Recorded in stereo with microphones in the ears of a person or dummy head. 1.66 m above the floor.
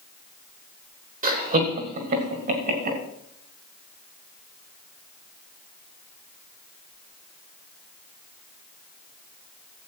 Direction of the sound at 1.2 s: 40° right (ahead or behind).